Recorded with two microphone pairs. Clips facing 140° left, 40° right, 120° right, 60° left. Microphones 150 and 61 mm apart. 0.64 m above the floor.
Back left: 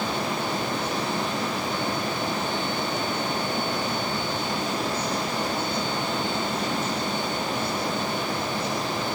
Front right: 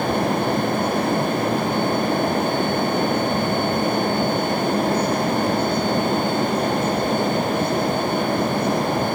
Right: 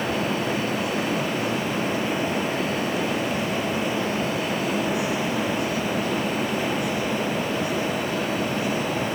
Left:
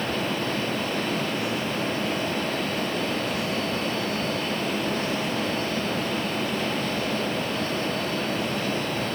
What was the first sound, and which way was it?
Only background noise.